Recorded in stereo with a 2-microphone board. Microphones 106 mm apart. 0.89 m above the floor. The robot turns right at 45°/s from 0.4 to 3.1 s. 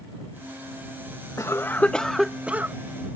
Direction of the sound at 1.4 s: 145° left.